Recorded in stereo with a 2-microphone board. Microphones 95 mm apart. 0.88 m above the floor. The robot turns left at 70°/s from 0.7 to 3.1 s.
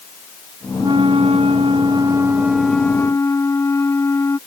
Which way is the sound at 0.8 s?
50° right.